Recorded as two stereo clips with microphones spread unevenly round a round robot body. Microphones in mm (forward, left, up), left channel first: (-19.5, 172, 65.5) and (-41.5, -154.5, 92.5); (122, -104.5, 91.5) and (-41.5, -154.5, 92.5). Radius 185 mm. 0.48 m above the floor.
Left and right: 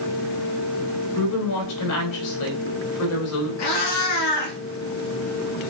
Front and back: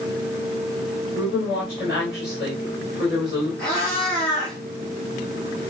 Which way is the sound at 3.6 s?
105° left.